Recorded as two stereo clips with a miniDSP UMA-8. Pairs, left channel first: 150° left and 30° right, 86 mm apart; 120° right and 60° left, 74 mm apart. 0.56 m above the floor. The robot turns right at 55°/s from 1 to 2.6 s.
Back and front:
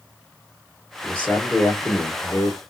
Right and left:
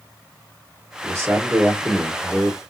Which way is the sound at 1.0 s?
80° left.